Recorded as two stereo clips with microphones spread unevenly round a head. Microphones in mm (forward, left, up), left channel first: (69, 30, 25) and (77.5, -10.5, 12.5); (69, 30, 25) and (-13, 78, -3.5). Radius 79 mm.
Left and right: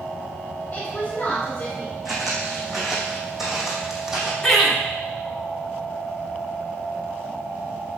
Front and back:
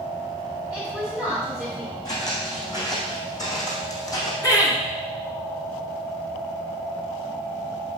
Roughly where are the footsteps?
Ahead.